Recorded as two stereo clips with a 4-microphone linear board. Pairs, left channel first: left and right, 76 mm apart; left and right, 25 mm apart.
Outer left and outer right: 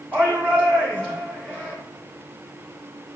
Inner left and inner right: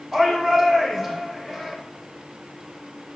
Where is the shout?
15° left (ahead or behind), 3.5 m.